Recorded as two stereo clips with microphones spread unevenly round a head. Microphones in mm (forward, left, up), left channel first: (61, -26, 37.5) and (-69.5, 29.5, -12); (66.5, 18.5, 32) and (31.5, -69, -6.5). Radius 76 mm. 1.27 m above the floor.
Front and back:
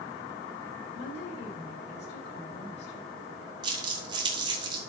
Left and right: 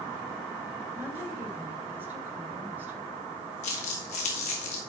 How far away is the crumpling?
About 2.5 m.